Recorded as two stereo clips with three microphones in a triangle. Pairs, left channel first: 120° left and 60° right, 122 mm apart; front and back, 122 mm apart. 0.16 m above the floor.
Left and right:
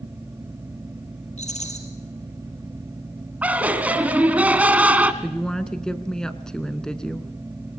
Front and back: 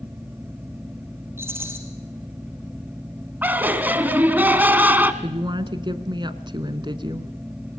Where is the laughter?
120° right, 1.3 m.